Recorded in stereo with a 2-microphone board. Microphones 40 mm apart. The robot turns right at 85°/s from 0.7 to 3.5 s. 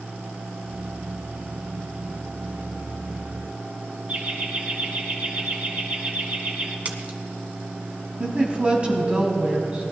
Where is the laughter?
45° right (ahead or behind), 3 m.